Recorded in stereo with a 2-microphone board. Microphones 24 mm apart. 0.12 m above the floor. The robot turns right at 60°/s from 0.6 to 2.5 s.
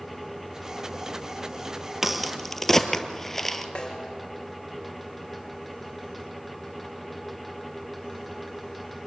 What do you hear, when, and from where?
2.0 s a crack: 15° right (ahead or behind), 1.3 m; by 3.6 s 10° left (ahead or behind), 1.3 m
3.8 s a snare drum: 35° left (ahead or behind), 3.5 m